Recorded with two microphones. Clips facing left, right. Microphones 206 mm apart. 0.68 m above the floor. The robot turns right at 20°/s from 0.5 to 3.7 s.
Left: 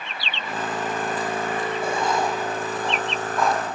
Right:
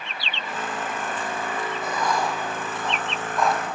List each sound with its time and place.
1.8 s writing: 30° left (ahead or behind), 3.5 m; by 3.6 s 5° right (ahead or behind), 3.5 m